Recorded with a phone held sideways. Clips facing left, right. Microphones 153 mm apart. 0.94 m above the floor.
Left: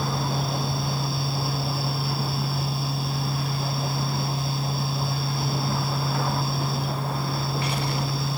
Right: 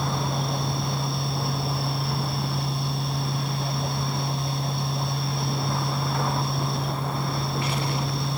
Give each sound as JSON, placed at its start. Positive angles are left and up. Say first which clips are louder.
{"t": 0.0, "sound": "a fan", "louder": "even", "side_deg": 0}